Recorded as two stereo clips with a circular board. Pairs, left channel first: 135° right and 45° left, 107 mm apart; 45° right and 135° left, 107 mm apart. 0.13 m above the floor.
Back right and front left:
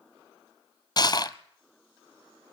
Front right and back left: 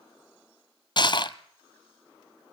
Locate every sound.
1.0 s crushing: 85° right, 0.8 m